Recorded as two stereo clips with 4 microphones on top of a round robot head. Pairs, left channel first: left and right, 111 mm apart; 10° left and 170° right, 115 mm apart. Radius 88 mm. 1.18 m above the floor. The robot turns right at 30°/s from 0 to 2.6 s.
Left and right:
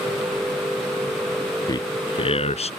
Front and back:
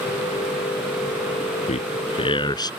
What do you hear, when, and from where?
1.7 s a man speaking: 35° left; by 2.7 s 65° left